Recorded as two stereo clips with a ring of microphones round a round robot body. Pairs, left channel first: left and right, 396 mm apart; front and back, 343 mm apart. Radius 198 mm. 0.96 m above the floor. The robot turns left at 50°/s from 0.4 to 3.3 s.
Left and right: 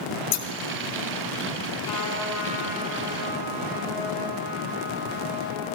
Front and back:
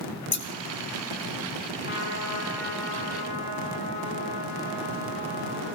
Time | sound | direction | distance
0.3 | scissors | 60° left | 1.9 m
1.8 | a trumpet | 65° left | 8 m